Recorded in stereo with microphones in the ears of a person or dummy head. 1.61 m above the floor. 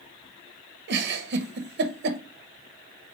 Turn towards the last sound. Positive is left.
turn(degrees=-55)  # may be behind; listen again after turning